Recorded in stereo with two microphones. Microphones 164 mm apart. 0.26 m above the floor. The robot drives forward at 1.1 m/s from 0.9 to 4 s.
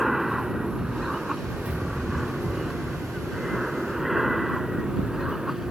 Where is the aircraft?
Centre (ahead or behind).